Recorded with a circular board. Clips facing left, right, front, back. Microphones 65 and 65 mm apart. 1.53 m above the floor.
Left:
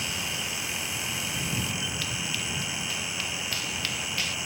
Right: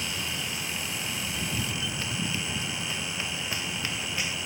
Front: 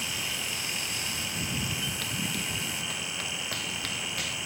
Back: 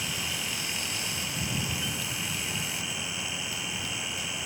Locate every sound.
2.0 s running footsteps: 25° right; by 4.3 s 20° right